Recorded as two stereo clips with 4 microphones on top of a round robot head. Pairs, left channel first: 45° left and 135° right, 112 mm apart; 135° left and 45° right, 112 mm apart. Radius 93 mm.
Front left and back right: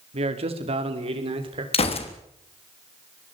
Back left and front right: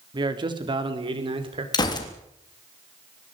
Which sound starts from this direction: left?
A gunshot, at 1.7 s.